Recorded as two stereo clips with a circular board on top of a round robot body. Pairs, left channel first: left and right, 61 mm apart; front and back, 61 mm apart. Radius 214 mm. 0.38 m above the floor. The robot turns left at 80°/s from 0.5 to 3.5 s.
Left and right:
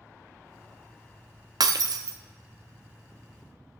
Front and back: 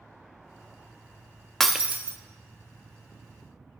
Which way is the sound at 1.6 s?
85° right.